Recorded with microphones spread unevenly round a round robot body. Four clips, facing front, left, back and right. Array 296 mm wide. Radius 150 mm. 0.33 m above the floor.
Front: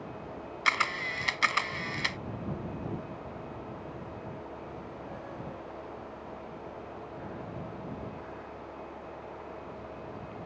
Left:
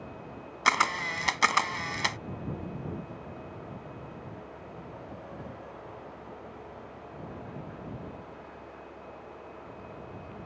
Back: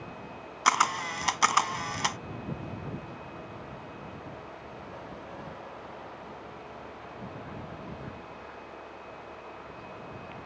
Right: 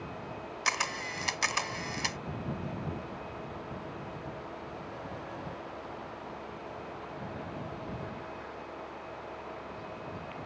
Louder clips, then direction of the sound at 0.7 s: Left 8 dB, back 6 dB; 115° left.